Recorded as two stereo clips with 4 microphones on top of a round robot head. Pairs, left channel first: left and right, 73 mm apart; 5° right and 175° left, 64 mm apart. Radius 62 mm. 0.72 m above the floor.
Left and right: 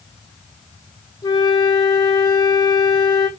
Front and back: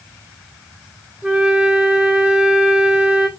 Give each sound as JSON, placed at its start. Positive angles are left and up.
{"t": 1.2, "sound": "a flute", "azimuth_deg": 110, "distance_m": 1.5}